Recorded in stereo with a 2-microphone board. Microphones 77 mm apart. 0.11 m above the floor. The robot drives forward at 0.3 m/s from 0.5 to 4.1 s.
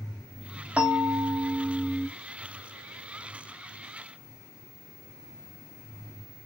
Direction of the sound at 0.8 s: 15° right (ahead or behind).